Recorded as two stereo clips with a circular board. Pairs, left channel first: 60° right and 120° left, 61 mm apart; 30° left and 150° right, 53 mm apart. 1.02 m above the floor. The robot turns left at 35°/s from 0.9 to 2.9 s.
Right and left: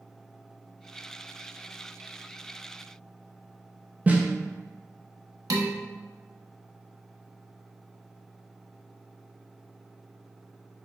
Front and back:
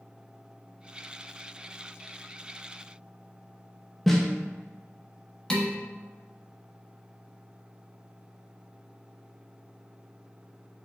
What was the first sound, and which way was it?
A snare drum, 115° left.